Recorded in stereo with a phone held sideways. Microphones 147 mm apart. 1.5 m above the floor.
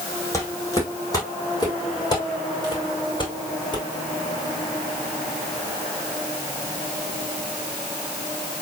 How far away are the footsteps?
About 5 m.